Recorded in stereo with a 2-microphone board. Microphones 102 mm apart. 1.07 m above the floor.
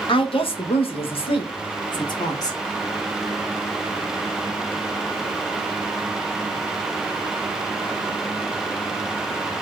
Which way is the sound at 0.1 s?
55° left (ahead or behind).